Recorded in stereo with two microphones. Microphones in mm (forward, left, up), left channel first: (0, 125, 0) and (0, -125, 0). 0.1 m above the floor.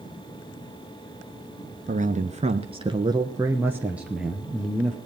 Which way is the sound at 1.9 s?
30° right (ahead or behind).